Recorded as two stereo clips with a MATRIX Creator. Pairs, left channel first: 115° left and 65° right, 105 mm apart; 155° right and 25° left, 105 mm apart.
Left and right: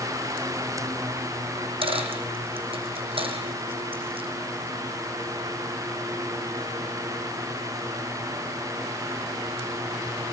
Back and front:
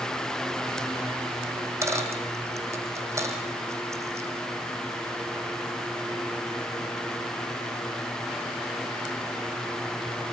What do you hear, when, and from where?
1.6 s a dropped coin: 40° right, 4.5 m